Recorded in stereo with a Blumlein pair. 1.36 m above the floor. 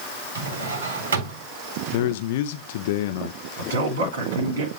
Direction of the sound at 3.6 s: 70° right.